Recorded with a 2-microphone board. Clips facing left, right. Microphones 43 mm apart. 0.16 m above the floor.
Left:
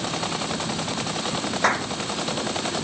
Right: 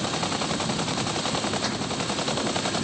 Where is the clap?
50° left (ahead or behind).